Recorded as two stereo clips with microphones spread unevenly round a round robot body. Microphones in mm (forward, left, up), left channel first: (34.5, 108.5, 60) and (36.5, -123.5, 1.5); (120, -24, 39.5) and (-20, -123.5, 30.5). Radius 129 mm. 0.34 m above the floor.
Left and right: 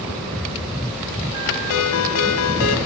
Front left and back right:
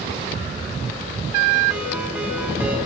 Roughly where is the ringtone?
Behind left.